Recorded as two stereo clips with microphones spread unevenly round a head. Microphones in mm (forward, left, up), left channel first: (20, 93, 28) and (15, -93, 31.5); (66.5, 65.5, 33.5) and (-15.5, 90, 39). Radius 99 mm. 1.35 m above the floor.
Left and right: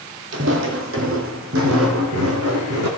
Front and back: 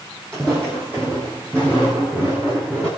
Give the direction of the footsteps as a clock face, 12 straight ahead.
3 o'clock.